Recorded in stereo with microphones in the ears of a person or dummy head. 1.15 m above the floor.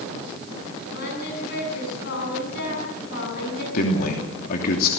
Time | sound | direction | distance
0.9 | singing | 60° left (ahead or behind) | 8.5 m
3.7 | a man speaking | 50° left (ahead or behind) | 3 m